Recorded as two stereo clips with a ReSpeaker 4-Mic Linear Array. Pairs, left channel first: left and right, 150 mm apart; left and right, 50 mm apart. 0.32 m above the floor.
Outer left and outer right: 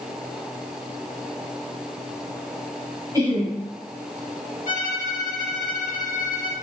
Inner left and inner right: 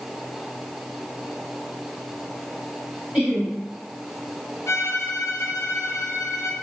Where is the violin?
65° left (ahead or behind), 0.7 m.